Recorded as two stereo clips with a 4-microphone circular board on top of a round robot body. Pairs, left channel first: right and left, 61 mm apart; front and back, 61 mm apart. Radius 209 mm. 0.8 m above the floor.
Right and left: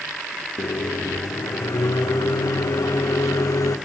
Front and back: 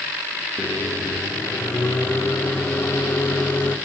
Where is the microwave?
55° right, 2 m.